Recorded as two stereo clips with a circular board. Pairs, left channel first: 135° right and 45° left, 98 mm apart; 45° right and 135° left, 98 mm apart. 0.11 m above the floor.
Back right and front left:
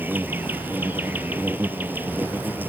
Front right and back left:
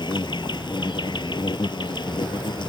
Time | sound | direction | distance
0.0 | an insect | 20° right | ?